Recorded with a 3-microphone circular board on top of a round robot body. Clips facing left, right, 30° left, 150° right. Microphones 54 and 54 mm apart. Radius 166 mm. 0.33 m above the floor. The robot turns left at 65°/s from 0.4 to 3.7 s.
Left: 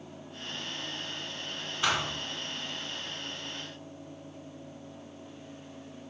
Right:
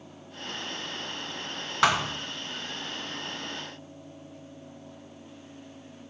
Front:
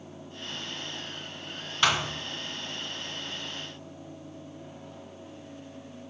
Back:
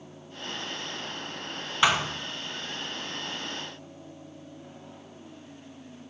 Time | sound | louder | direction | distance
1.8 | a thud | right 6 dB, back 2 dB | 75° right | 1.4 m